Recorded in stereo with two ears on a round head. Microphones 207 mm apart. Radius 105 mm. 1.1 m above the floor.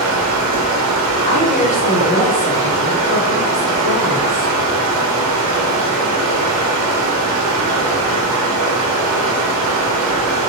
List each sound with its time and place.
0.0 s running water: 65° right (ahead or behind), 0.7 m
1.2 s a woman speaking: 35° left (ahead or behind), 1.1 m